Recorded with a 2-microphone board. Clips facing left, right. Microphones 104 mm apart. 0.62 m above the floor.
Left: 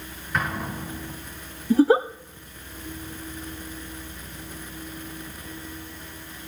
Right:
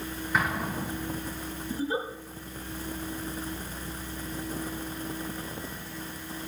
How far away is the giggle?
About 0.5 m.